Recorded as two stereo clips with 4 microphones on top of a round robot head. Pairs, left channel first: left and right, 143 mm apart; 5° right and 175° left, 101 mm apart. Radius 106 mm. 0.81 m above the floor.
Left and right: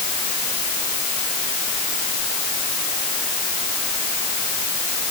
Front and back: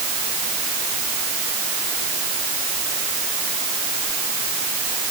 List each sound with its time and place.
Only background noise.